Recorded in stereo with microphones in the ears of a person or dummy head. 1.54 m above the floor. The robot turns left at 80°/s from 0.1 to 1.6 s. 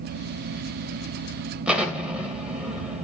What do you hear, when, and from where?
1.7 s an explosion: 5° right (ahead or behind), 2.5 m